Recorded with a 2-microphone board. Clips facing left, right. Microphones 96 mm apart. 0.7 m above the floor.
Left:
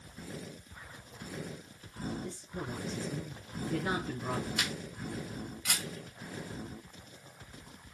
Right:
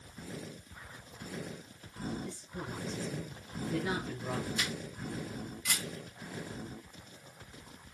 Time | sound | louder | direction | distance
2.2 | a woman speaking | left 2 dB | 45° left (ahead or behind) | 6.5 m
4.6 | a camera shutter | even | 70° left (ahead or behind) | 4.5 m